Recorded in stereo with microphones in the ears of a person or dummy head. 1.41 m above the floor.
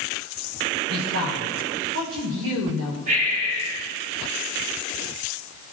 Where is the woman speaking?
80° right, 6.5 m.